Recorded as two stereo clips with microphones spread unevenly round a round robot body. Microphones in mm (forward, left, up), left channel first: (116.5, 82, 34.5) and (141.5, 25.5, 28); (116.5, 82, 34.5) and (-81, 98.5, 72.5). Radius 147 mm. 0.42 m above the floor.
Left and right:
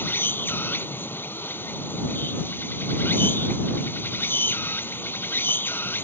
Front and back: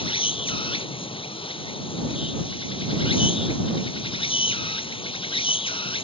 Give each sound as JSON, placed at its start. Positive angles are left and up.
{"t": 0.0, "sound": "an insect", "azimuth_deg": 60}